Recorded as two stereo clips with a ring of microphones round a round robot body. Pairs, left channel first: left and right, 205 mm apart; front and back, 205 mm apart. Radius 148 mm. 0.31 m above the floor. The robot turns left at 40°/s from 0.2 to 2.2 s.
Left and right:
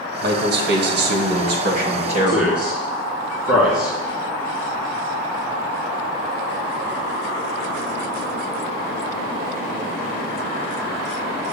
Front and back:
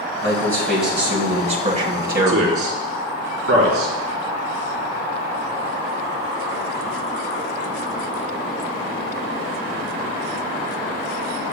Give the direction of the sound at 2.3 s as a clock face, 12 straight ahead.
6 o'clock.